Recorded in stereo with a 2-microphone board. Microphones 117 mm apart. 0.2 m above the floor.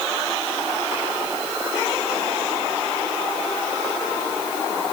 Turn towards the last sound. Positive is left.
No sound to turn to.